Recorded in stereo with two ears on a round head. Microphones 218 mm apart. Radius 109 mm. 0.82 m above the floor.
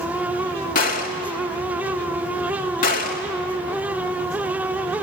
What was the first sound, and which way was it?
A gunshot, 35° left (ahead or behind).